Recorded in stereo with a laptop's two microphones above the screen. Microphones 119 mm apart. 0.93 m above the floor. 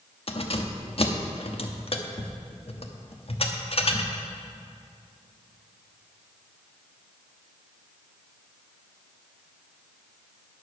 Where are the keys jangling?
55° left (ahead or behind), 0.9 m.